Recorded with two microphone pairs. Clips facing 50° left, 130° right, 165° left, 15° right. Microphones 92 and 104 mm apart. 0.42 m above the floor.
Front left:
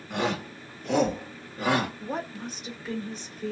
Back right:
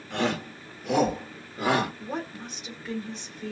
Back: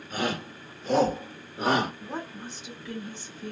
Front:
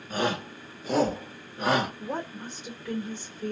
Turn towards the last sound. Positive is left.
turn(degrees=-35)